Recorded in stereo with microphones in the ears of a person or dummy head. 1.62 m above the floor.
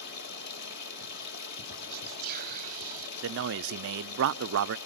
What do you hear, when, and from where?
0.0 s running water: 65° left (ahead or behind), 6 m
1.9 s whispering: 40° right (ahead or behind), 0.7 m
3.2 s a man speaking: 55° right (ahead or behind), 0.6 m